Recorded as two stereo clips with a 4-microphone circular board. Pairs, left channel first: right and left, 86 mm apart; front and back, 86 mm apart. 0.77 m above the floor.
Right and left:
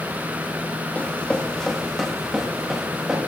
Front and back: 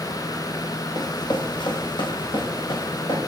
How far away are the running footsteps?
About 1.4 m.